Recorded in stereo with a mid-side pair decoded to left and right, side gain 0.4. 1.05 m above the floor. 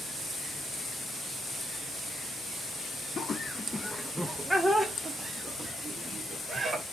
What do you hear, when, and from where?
3.2 s laughter: 50° left, 0.7 m; by 6.8 s 40° right, 1.8 m